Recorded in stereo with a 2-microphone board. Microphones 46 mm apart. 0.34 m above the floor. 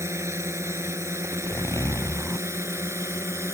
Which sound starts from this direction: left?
A zipper, at 1.2 s.